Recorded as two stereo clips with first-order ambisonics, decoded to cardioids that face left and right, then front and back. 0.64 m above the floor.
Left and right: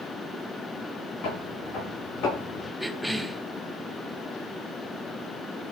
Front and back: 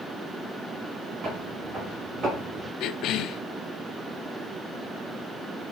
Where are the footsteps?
120° left, 9 m; by 2.7 s 115° left, 8 m.